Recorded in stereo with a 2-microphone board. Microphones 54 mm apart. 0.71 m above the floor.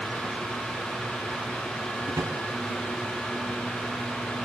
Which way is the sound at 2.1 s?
75° right (ahead or behind).